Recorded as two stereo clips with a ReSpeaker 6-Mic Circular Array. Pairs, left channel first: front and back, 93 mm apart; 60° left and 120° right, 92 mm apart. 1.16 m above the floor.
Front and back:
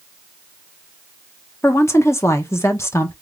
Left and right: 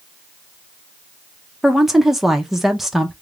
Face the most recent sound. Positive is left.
turn(degrees=-35)